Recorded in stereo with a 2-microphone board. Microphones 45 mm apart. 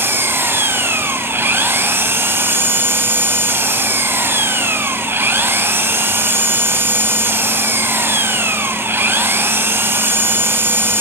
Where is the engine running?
55° right (ahead or behind), 2.5 m.